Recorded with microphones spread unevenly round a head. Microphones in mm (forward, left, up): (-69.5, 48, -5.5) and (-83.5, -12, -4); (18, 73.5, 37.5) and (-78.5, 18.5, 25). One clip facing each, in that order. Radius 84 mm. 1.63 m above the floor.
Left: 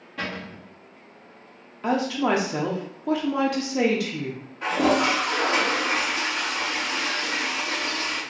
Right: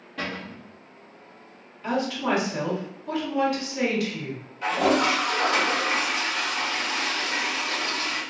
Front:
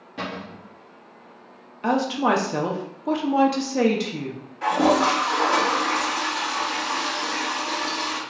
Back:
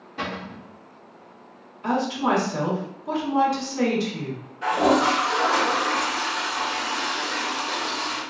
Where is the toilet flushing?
30° left, 1.7 m.